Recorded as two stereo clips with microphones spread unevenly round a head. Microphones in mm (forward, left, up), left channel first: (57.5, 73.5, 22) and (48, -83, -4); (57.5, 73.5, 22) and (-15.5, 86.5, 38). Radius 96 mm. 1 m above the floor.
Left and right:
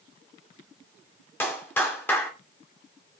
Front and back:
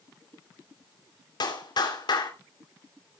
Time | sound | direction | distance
1.4 | a clap | 10° left | 3 m